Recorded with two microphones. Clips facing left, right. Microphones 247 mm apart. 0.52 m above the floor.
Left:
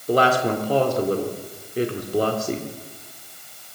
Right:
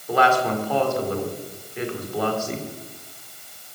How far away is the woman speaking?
About 1.7 m.